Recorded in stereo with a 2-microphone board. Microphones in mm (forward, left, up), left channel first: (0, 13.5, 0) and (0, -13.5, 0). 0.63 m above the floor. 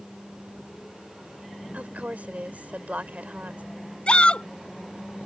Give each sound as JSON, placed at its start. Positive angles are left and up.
{"t": 1.7, "sound": "a woman speaking", "side_deg": -75}
{"t": 4.1, "sound": "a shout", "side_deg": 45}